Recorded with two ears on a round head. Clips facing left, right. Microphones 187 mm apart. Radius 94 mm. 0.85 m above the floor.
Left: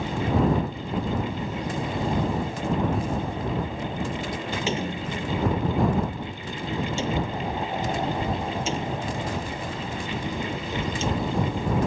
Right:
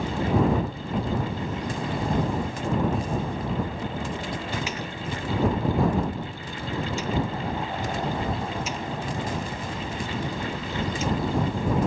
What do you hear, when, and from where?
4.7 s a door slam: 25° left (ahead or behind)